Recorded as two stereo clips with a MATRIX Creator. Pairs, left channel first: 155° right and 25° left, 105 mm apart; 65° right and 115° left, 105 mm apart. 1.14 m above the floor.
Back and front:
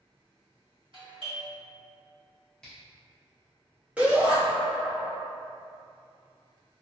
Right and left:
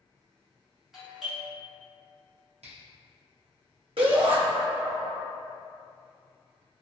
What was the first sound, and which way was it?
A doorbell, 25° left.